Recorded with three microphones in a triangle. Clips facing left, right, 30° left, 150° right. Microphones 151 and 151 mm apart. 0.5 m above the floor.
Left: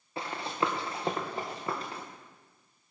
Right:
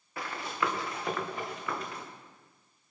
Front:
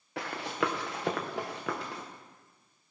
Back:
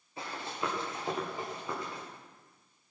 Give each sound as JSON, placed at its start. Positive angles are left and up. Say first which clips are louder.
{"t": 0.2, "sound": "running footsteps", "louder": "left 2 dB, front 5 dB", "azimuth_deg": 25, "distance_m": 2.5}